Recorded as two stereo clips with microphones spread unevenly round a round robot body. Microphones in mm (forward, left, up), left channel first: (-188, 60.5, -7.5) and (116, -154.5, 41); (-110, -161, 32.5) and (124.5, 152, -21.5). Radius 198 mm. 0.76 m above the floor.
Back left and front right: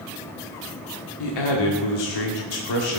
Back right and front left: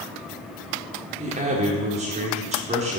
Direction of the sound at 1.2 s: 125° left.